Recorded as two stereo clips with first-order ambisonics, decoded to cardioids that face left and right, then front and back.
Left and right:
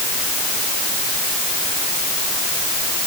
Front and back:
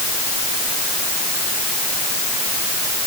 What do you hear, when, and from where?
Only background noise.